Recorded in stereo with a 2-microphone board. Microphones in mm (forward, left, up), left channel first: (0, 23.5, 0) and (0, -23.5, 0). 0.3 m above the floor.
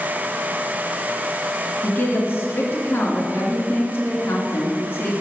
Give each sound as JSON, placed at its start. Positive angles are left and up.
{"t": 1.8, "sound": "a woman speaking", "side_deg": 50, "distance_m": 3.0}